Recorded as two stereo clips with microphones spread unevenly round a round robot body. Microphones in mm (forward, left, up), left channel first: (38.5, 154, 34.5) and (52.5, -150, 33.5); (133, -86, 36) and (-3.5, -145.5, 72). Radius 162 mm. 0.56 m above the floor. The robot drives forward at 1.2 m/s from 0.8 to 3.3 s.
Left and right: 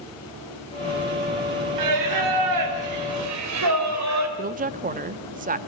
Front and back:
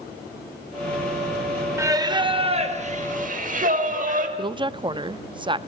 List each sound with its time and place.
1.8 s singing: 80° right, 2.5 m; by 4.3 s 125° right, 2.5 m
4.4 s a woman speaking: 105° right, 0.6 m